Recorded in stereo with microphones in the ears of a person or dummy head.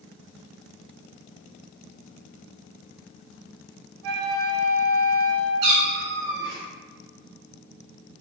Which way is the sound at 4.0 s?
70° right (ahead or behind).